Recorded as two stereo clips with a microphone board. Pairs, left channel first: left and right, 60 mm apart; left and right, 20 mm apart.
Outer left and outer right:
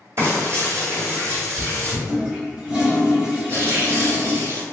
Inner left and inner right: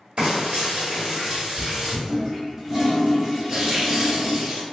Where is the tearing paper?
40° right (ahead or behind), 1.3 m.